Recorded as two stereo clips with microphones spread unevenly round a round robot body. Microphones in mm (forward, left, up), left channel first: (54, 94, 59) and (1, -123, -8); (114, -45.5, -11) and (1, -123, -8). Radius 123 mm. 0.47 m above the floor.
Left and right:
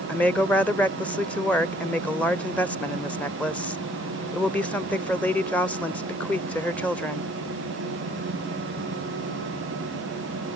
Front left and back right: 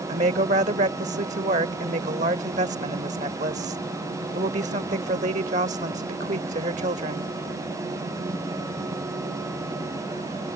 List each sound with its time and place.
0.1 s a woman speaking: 170° left